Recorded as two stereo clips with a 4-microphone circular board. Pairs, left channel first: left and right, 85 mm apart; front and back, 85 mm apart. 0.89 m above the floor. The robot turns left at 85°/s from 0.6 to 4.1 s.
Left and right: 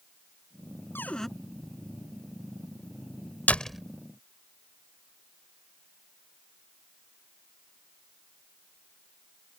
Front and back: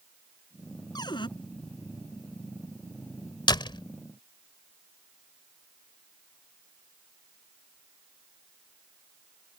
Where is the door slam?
20° left; by 3.8 s 10° right.